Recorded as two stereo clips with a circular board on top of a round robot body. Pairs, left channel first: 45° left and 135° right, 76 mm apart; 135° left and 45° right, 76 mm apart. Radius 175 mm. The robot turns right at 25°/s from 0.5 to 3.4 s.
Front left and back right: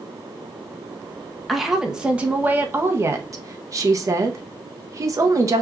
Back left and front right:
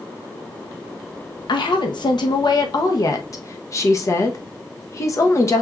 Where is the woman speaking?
135° left, 0.9 m; by 5.6 s 175° right, 0.9 m.